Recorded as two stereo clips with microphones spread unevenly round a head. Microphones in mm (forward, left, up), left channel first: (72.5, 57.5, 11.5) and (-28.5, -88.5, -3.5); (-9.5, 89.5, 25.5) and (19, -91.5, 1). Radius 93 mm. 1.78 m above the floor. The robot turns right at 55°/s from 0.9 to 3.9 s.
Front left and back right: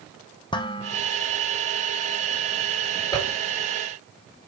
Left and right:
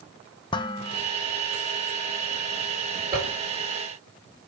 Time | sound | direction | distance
0.5 | dishes clattering | 80° left | 1.0 m
3.1 | a zipper | 15° right | 4.5 m